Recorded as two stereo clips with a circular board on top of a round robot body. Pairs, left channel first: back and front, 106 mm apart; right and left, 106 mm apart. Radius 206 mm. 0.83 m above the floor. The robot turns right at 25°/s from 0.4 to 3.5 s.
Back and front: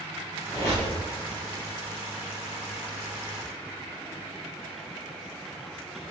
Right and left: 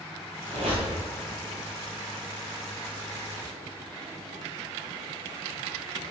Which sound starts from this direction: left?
A squeak, at 0.5 s.